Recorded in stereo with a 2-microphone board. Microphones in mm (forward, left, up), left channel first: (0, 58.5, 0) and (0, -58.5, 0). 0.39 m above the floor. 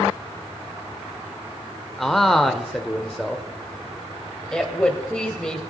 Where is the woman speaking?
5° left (ahead or behind), 2 m.